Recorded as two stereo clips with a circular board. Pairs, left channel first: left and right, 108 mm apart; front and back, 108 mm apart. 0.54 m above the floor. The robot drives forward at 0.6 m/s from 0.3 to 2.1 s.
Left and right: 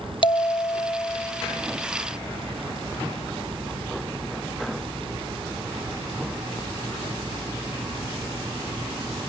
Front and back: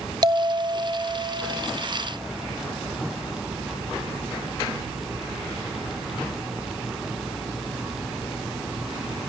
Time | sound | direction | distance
0.2 | a bell | 130° left | 0.8 m